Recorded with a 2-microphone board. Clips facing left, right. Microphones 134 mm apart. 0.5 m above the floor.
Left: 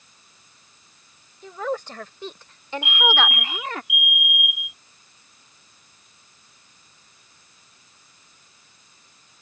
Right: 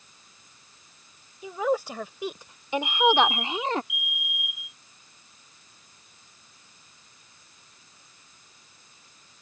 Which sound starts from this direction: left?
A fire alarm, at 2.8 s.